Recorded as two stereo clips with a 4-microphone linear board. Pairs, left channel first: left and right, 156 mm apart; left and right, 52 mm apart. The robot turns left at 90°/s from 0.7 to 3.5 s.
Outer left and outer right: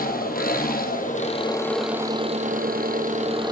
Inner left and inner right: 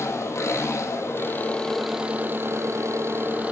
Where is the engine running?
100° left, 2.5 m; by 3.5 s 150° right, 2.5 m.